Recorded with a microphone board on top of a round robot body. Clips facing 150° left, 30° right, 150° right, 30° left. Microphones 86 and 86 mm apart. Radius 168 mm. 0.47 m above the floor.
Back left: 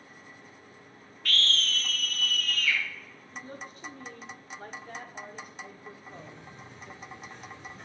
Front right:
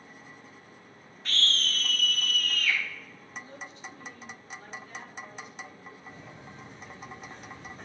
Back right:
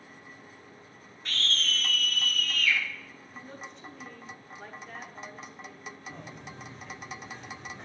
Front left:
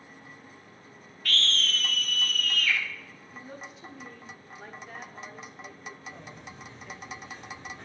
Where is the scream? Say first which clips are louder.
Back left 1 dB, front left 3 dB; 90° right, 1.2 m; by 2.8 s 15° right, 1.9 m.